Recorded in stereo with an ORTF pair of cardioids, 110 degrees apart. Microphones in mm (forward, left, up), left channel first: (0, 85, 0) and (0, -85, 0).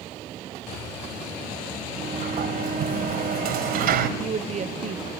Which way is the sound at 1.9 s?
65° right.